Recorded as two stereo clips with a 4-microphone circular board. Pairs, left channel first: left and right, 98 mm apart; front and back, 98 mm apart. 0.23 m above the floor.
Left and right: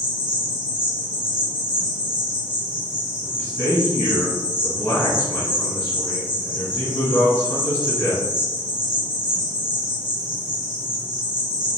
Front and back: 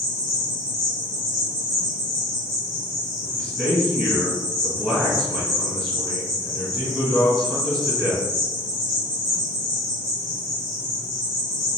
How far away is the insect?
About 1.2 m.